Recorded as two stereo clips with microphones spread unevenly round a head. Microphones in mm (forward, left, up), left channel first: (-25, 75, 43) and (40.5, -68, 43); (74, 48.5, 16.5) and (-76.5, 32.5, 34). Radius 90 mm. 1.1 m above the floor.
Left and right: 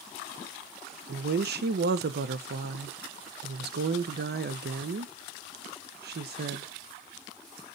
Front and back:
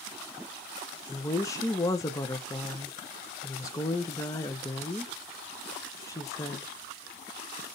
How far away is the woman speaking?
About 0.6 m.